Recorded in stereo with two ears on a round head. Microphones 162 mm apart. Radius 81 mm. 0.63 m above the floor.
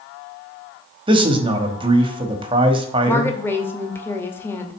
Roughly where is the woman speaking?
Centre.